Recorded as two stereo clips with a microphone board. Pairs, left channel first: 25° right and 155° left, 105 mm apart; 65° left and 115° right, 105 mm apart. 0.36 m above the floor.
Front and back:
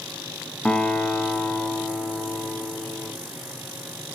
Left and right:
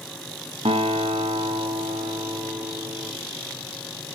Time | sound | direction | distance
0.7 | a guitar | 100° right | 0.7 m